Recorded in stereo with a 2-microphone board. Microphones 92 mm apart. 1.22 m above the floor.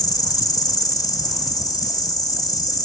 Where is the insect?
40° left (ahead or behind).